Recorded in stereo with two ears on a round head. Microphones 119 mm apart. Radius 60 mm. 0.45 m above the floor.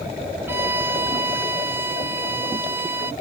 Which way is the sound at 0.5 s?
15° right (ahead or behind).